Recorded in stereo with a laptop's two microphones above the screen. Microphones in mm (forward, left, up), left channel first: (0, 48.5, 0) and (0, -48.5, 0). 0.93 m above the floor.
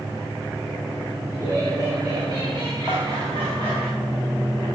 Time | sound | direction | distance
1.3 | laughter | 40° right (ahead or behind) | 4.5 m
2.9 | dishes clattering | 25° right (ahead or behind) | 2.5 m